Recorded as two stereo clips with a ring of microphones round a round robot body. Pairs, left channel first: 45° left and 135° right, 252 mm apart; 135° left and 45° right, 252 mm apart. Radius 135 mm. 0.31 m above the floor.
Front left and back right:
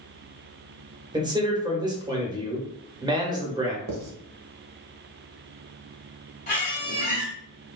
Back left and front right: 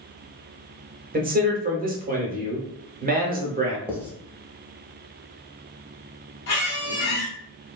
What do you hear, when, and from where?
1.1 s a man speaking: 70° right, 1.0 m
3.9 s writing: 130° right, 0.8 m
6.5 s a squeak: 100° left, 1.5 m